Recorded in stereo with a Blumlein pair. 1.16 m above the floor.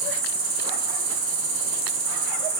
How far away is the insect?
About 0.8 m.